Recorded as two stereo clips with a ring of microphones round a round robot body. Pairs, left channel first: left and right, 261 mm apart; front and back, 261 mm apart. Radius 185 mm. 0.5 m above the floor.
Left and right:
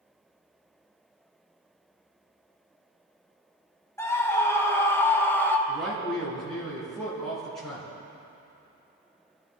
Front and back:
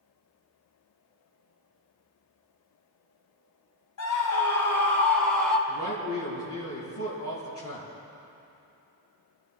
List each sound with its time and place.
4.0 s a scream: 10° left, 4 m
5.7 s a man speaking: straight ahead, 5.5 m